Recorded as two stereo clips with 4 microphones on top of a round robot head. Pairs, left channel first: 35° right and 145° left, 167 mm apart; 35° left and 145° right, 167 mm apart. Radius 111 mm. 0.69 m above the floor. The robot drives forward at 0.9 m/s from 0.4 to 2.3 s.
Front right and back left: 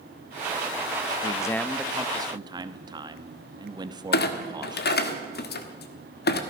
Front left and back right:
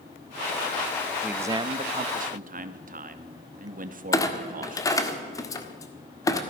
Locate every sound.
1.2 s a man speaking: 60° right, 0.7 m; by 5.1 s 155° right, 1.0 m
4.1 s a clunk: 30° right, 1.6 m